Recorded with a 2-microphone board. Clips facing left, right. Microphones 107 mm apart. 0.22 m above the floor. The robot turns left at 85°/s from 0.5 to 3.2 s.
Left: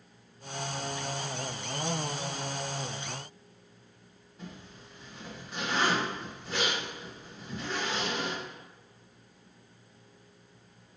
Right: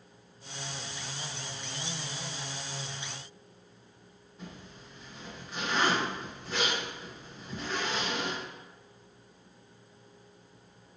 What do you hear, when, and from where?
4.4 s a zipper: centre (ahead or behind), 1.2 m